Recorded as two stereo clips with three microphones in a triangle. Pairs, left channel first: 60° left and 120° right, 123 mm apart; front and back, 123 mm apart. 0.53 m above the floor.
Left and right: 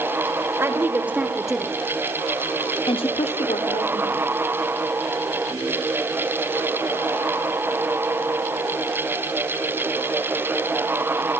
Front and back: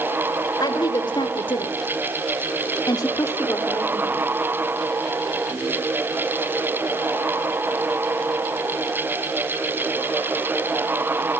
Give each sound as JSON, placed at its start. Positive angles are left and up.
{"t": 0.6, "sound": "a woman speaking", "azimuth_deg": -50, "distance_m": 1.8}